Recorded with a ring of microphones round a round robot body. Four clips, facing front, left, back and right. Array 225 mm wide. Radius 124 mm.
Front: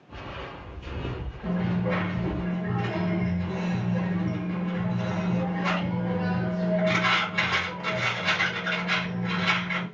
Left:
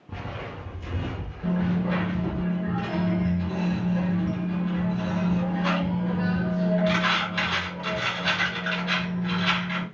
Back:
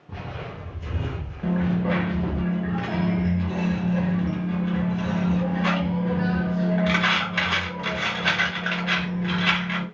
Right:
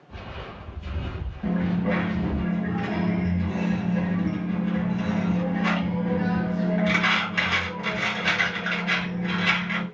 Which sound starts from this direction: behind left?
Footsteps, at 0.1 s.